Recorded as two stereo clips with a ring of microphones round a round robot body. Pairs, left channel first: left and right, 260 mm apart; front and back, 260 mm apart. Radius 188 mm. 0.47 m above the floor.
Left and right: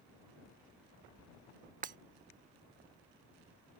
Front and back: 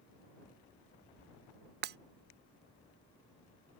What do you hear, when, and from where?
1.8 s breaking glass: 145° right